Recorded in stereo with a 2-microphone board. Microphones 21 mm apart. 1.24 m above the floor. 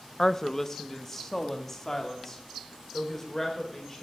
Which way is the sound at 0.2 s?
25° left (ahead or behind).